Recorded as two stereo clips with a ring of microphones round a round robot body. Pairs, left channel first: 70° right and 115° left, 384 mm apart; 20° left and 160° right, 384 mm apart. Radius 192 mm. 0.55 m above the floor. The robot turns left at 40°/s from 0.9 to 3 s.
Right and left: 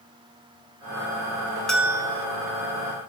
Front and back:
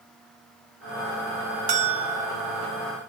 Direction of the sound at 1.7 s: 155° right.